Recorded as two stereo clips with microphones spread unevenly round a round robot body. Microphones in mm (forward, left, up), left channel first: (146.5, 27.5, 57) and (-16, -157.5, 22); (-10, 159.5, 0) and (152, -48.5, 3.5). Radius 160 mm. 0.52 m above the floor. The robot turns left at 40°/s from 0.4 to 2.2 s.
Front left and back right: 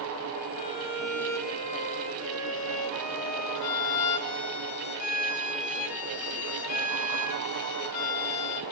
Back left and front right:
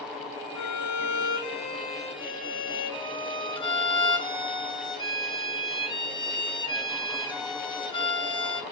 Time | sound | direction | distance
0.6 | a violin | 120° left | 1.9 m